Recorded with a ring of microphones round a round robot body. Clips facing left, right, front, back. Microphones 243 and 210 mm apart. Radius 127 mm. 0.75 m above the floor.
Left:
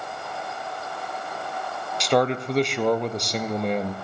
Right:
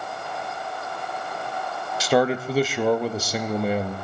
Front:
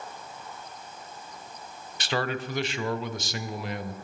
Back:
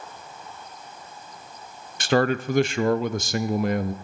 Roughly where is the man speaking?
Behind.